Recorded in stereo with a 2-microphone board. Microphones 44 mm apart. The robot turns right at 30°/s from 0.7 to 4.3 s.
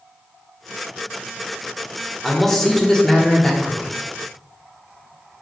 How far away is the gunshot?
I don't hear a gunshot.